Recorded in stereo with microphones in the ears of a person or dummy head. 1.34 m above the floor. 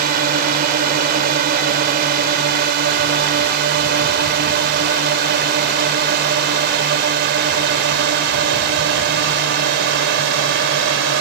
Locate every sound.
0.0 s a drone: 45° right (ahead or behind); by 11.2 s 55° right (ahead or behind)